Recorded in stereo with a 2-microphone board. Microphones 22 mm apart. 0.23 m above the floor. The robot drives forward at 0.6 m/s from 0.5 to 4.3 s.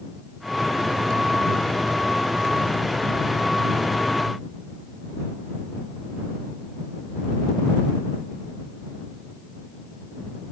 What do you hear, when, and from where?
Only background noise.